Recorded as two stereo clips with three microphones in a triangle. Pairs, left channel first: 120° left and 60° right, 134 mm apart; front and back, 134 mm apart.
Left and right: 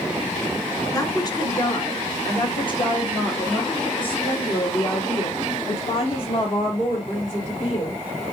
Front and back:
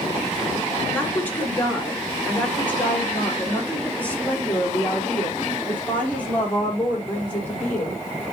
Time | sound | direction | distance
0.9 | a woman speaking | 70° left | 2 m